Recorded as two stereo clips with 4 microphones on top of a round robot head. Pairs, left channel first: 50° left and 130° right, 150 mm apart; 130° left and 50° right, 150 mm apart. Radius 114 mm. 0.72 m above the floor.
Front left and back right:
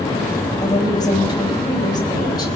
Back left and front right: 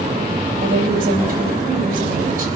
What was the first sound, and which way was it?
A woman speaking, 15° right.